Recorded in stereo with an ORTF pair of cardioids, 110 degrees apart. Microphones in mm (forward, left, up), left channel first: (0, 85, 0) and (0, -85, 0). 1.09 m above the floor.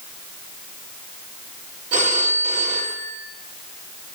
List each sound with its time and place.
1.9 s a phone ringing: 50° right, 1.6 m